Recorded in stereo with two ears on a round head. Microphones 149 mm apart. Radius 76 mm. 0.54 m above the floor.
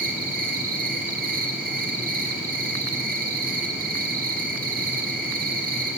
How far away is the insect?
About 4 m.